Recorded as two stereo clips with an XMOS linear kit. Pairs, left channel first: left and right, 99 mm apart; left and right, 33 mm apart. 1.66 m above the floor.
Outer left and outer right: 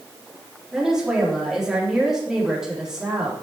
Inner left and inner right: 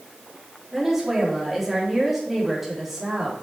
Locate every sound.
0.7 s a woman speaking: 5° right (ahead or behind), 4 m